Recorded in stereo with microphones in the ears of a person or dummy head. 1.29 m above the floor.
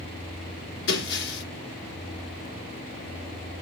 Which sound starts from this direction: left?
Breaking glass, at 0.9 s.